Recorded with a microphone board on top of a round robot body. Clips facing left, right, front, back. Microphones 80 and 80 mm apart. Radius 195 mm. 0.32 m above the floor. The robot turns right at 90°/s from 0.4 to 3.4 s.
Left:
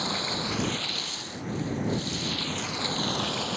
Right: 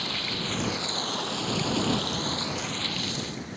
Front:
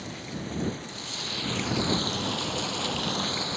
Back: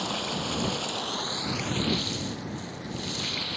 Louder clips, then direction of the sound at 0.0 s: Left 2 dB, back 6 dB; 160° left.